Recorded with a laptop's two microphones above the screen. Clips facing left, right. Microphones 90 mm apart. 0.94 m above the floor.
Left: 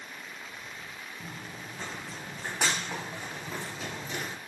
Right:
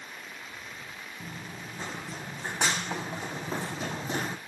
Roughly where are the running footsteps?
Centre.